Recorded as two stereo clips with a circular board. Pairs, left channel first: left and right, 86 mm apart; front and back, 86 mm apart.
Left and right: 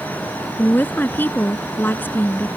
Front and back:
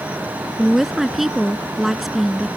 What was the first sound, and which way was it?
A woman speaking, 95° left.